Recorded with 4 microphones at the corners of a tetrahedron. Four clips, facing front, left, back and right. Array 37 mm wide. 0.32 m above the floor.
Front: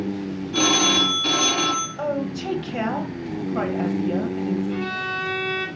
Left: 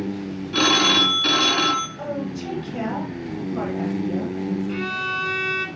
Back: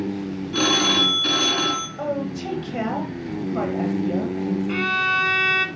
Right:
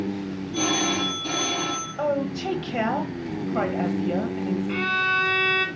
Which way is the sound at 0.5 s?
100° left.